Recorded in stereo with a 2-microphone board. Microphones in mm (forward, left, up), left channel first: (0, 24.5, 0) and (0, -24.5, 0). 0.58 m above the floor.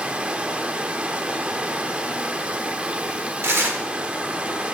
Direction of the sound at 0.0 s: 25° right (ahead or behind).